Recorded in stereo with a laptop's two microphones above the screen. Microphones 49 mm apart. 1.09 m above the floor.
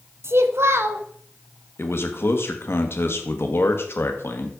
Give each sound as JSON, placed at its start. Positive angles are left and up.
{"t": 0.2, "sound": "a child speaking", "side_deg": -60, "distance_m": 1.0}
{"t": 1.8, "sound": "a man speaking", "side_deg": 55, "distance_m": 1.3}